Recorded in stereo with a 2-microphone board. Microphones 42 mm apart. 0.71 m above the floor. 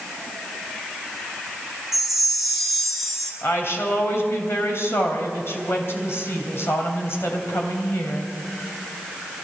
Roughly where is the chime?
Centre.